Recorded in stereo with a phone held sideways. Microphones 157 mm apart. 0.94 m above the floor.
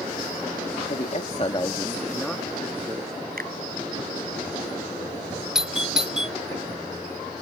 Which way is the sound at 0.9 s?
60° left (ahead or behind).